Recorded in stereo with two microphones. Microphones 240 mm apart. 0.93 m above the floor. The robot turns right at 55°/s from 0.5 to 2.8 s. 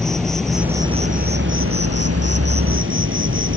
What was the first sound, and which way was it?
An insect, straight behind.